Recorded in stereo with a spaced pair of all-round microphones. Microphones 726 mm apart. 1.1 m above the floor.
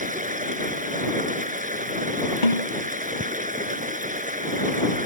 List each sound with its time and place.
0.0 s running water: 10° right (ahead or behind)
2.4 s a snare drum: 85° left